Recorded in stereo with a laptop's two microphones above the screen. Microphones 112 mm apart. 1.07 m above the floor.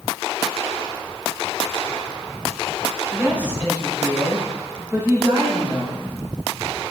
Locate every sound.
3.1 s a woman speaking: 15° right (ahead or behind), 4.5 m; by 6.1 s 35° right (ahead or behind), 5 m